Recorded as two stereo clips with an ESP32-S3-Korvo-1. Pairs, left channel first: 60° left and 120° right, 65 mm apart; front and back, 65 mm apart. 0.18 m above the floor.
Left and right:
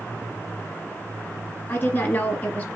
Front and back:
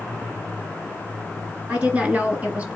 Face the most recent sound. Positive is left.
turn(degrees=120)